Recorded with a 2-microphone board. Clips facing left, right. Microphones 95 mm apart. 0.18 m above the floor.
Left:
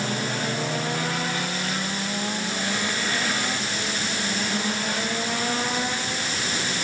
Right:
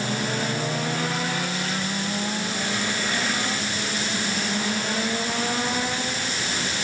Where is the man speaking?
I don't hear a man speaking.